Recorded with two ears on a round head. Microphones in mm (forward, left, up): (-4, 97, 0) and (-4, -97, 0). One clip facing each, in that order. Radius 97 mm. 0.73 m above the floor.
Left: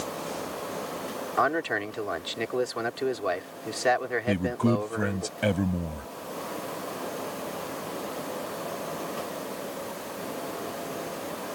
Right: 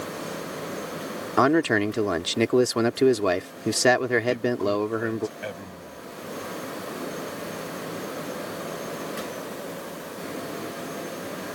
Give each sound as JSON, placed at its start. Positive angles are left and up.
{"t": 1.4, "sound": "a man speaking", "side_deg": -60}
{"t": 4.3, "sound": "a man speaking", "side_deg": 65}